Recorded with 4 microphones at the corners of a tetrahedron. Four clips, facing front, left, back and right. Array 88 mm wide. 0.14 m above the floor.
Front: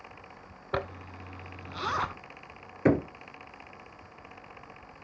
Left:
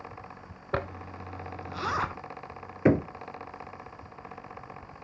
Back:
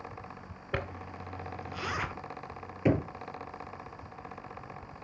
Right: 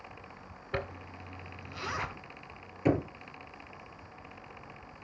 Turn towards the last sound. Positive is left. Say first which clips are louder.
# left 5 dB, front 3 dB
turn(degrees=55)